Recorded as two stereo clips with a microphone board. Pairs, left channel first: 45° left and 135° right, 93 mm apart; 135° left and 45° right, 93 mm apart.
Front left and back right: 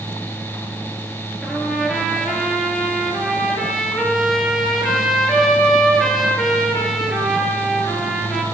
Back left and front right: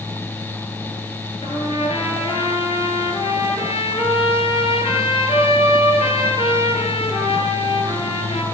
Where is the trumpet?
135° left, 5.5 m.